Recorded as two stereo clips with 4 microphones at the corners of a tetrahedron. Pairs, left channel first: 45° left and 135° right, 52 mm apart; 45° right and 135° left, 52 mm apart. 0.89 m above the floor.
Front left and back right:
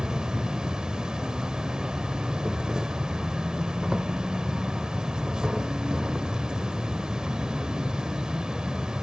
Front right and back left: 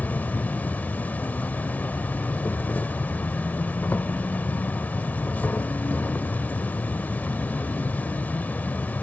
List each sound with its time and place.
0.0 s an insect: 70° right, 0.7 m